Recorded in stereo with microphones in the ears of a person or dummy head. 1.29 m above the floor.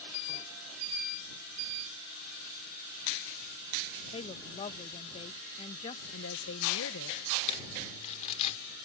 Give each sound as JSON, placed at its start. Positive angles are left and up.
{"t": 4.1, "sound": "a woman speaking", "side_deg": 30}
{"t": 6.1, "sound": "a woman speaking", "side_deg": 75}
{"t": 7.5, "sound": "crumpling", "side_deg": 40}